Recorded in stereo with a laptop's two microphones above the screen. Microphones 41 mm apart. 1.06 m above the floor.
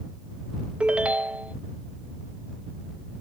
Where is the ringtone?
30° right (ahead or behind).